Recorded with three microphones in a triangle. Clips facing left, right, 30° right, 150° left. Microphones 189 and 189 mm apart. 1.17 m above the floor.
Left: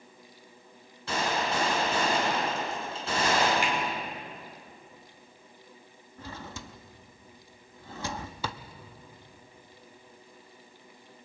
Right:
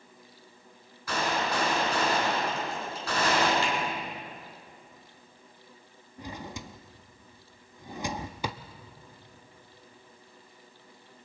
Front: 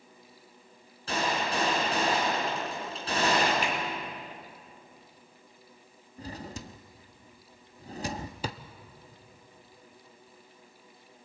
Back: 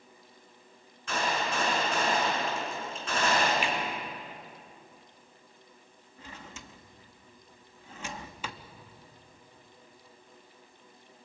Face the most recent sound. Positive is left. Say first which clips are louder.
# right 2 dB, front 8 dB
turn(degrees=-25)